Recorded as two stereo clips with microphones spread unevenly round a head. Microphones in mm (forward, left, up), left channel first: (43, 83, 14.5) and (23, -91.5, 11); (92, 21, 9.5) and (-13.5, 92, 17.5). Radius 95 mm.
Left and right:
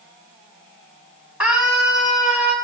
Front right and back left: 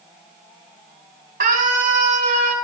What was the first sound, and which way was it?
A scream, straight behind.